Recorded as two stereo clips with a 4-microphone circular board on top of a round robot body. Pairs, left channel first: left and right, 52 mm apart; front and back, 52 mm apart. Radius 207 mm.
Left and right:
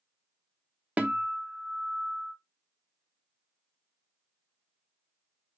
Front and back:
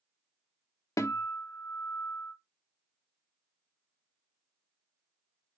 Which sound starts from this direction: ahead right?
A guitar, at 1.0 s.